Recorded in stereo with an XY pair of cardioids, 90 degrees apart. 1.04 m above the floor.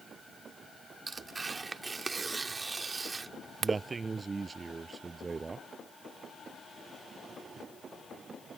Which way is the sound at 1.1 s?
35° right.